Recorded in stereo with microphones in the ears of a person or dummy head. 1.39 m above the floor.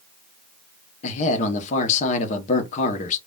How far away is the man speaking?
About 0.7 m.